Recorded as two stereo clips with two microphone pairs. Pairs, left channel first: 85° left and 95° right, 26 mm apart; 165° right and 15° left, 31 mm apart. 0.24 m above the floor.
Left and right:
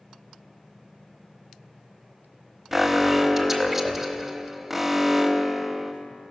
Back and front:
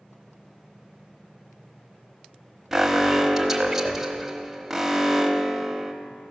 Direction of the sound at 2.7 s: 45° right.